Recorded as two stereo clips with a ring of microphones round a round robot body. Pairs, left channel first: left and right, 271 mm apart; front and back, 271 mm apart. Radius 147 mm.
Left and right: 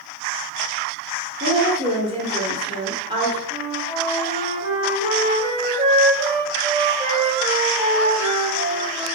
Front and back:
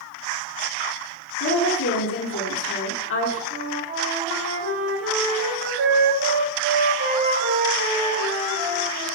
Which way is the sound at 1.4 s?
25° right.